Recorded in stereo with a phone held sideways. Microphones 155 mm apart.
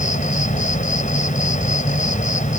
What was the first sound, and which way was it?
An insect, 55° left (ahead or behind).